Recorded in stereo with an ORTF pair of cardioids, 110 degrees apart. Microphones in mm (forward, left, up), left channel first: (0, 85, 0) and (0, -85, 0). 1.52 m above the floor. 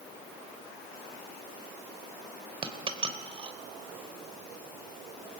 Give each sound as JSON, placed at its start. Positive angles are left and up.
{"t": 2.6, "sound": "a dropped coin", "azimuth_deg": -30, "distance_m": 3.0}